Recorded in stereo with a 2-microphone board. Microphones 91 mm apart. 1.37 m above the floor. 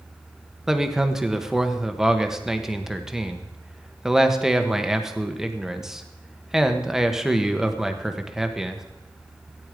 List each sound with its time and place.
0.7 s a man speaking: 5° right (ahead or behind), 1.2 m